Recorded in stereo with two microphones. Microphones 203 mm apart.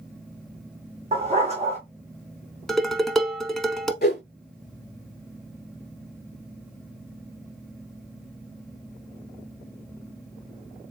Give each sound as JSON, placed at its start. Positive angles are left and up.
{"t": 1.1, "sound": "a dog barking", "side_deg": -30, "distance_m": 2.0}
{"t": 2.7, "sound": "dishes clattering", "side_deg": 0, "distance_m": 0.8}
{"t": 4.0, "sound": "a whoosh", "side_deg": 55, "distance_m": 0.8}